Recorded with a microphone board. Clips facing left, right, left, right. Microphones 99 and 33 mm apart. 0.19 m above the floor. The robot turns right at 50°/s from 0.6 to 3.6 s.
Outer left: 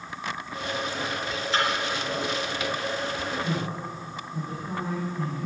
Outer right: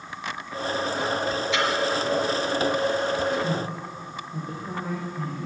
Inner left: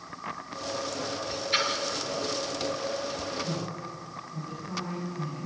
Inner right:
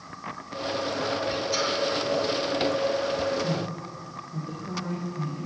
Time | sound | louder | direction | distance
1.5 | a splash | outer left 1 dB, inner left 3 dB | 40° left (ahead or behind) | 4 m
3.4 | a man speaking | outer right 2 dB, inner right 4 dB | 45° right (ahead or behind) | 10 m